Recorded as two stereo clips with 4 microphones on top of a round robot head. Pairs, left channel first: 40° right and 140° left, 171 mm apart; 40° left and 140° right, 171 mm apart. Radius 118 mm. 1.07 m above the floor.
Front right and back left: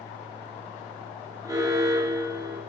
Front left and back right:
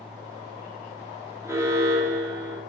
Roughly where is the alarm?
Behind.